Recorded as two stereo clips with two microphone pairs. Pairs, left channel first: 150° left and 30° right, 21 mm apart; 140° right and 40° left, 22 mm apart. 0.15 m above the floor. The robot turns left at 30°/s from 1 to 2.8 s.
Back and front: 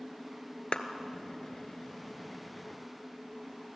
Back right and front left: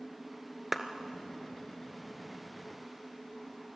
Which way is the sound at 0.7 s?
115° left.